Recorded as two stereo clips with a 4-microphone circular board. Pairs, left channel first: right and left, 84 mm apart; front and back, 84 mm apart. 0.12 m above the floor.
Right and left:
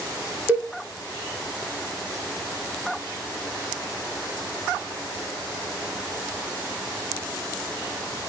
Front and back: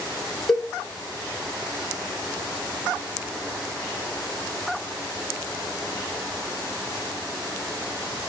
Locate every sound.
0.5 s a cowbell: 80° left, 0.8 m